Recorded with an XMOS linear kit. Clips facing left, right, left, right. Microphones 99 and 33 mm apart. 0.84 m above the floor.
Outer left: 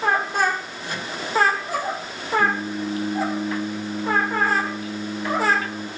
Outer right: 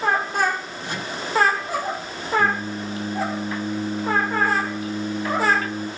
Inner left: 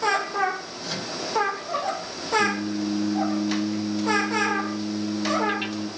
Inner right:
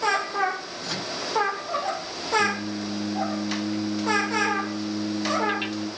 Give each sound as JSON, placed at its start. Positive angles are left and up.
{"t": 0.8, "sound": "a microwave", "side_deg": -25, "distance_m": 9.5}
{"t": 2.4, "sound": "singing", "side_deg": -15, "distance_m": 5.0}